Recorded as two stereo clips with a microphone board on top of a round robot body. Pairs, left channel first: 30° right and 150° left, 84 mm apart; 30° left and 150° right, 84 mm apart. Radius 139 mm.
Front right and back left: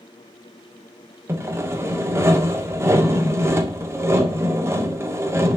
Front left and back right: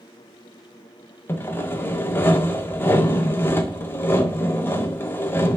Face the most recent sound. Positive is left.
turn(degrees=95)